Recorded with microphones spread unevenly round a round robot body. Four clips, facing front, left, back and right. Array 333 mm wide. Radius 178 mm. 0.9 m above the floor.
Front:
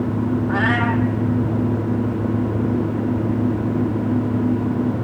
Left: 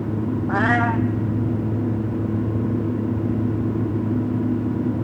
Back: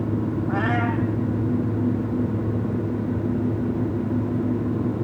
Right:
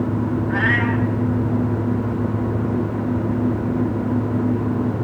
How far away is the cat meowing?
About 0.5 m.